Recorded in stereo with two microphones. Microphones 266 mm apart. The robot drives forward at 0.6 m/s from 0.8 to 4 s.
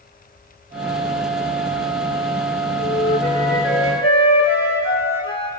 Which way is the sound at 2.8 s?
40° left (ahead or behind).